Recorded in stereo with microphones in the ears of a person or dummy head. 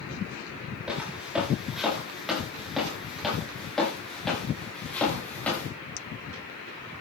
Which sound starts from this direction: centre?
Footsteps, at 0.9 s.